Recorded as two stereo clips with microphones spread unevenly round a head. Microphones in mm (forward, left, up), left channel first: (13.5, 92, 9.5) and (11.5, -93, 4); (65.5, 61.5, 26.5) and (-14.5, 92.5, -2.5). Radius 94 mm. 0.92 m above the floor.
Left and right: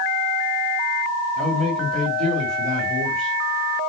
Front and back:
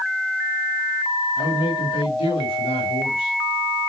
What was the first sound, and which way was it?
A man speaking, 35° right.